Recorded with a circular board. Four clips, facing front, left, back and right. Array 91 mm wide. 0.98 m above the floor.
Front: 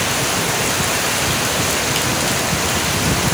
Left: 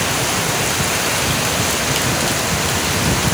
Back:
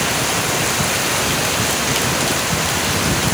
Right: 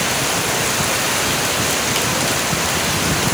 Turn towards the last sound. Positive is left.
No sound to turn to.